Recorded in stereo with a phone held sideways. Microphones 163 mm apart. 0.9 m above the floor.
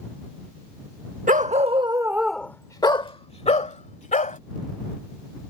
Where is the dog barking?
55° right (ahead or behind); by 4.4 s 50° left (ahead or behind).